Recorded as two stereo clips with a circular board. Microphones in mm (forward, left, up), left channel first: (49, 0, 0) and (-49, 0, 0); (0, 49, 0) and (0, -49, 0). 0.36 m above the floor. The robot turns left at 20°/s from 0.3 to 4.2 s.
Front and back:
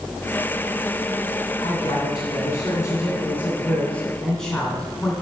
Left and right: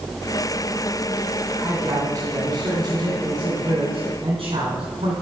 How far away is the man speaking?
About 2.5 m.